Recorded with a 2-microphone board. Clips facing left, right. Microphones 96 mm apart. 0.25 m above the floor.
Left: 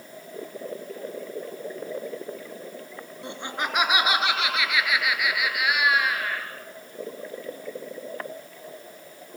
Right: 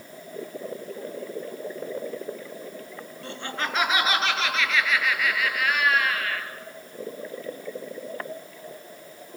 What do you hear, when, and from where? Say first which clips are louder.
3.2 s laughter: left 1 dB; 15° left (ahead or behind), 3 m; by 6.5 s 10° left (ahead or behind), 5 m